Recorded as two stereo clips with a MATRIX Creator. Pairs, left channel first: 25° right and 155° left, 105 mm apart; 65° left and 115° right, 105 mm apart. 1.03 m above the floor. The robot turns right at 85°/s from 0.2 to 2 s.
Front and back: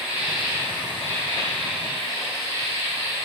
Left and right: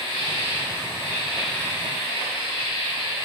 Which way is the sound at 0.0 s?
125° right.